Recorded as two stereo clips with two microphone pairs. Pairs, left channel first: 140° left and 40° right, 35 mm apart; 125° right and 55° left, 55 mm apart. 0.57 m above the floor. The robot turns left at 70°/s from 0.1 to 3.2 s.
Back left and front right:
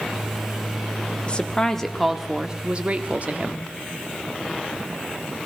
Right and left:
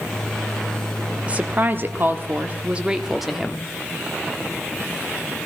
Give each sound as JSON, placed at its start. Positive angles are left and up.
{"t": 1.3, "sound": "a woman speaking", "azimuth_deg": 110, "distance_m": 1.2}